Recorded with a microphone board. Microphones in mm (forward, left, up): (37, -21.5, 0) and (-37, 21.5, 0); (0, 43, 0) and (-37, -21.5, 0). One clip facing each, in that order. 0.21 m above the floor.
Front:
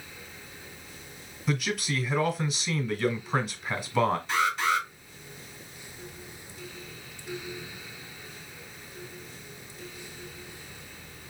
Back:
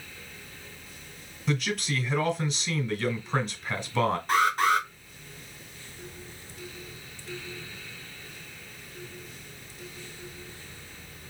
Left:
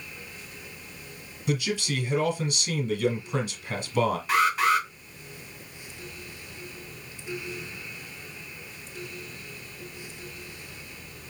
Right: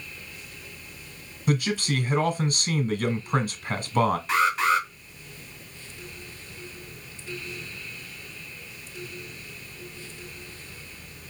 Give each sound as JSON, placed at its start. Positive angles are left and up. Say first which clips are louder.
{"t": 1.5, "sound": "a man speaking", "louder": "even, right 3 dB", "azimuth_deg": -115, "distance_m": 1.5}
{"t": 4.3, "sound": "an alarm", "louder": "back 3 dB, left 2 dB", "azimuth_deg": 140, "distance_m": 3.0}